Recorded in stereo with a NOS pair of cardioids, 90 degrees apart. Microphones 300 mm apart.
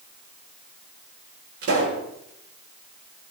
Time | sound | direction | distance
1.6 | a pop | 50° right | 8 m